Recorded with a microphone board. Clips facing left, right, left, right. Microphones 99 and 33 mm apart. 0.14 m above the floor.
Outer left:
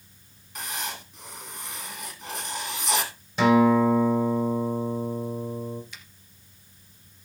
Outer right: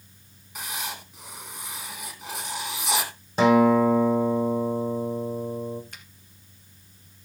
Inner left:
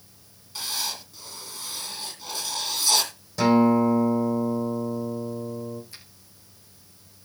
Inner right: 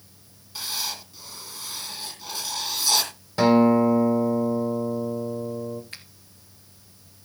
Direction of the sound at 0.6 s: 5° right (ahead or behind).